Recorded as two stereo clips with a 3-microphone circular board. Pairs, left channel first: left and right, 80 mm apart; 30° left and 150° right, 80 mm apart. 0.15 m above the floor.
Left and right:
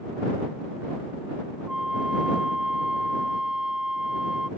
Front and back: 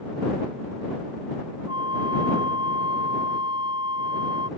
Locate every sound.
1.7 s a flute: 170° right